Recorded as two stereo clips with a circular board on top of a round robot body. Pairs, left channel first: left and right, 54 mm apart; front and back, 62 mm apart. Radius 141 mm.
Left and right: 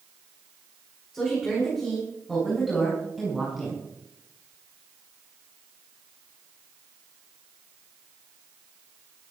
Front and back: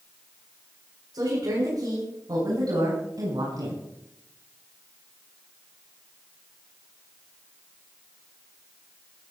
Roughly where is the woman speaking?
Behind.